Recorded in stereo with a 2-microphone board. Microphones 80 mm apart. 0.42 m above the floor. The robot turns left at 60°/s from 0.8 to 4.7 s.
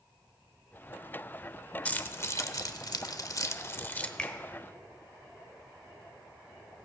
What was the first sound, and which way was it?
Keys jangling, 20° left (ahead or behind).